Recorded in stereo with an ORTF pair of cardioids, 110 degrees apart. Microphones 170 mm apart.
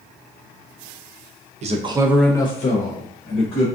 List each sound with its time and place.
1.6 s a man speaking: 45° right, 0.7 m; by 3.7 s 75° left, 1.2 m